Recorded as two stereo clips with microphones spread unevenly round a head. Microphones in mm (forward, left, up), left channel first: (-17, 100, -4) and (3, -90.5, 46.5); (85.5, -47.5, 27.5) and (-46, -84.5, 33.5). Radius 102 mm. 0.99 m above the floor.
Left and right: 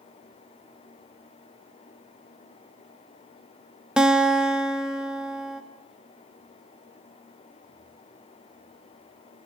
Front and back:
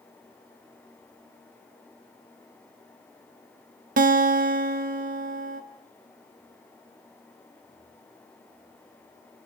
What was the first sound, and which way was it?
A guitar, 175° right.